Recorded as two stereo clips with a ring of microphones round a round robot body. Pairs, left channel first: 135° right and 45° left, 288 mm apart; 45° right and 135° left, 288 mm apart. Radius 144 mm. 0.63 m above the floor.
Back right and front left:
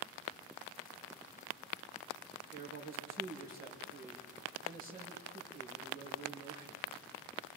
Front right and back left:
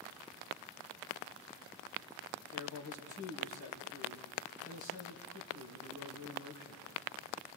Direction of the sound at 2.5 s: 15° right.